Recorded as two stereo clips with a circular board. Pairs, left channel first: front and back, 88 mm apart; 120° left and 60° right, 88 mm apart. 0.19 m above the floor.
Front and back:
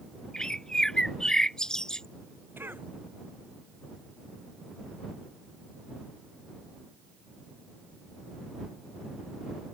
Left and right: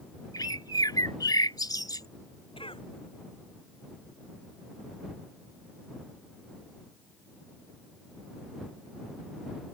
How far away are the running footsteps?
No running footsteps in this recording.